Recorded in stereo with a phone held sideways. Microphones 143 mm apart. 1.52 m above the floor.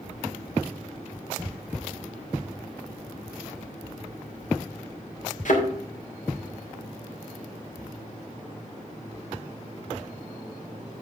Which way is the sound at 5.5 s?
65° left (ahead or behind).